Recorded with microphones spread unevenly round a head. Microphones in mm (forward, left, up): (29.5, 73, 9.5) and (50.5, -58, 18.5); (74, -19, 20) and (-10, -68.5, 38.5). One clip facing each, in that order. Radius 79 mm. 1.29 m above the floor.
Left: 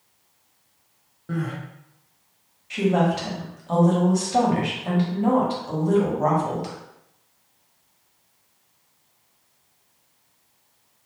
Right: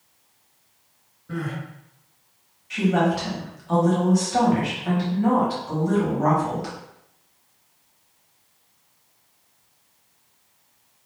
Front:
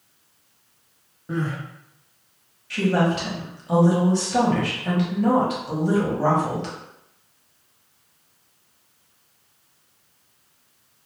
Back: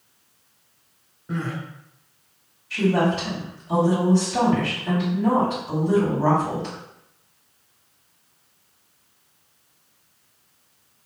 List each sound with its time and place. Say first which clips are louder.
1.3 s crying: left 1 dB, front 2 dB; 100° left, 1.4 m
2.7 s a woman speaking: even, even; 35° left, 1.5 m